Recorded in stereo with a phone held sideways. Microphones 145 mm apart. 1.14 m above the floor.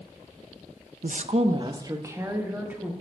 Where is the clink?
I don't hear a clink.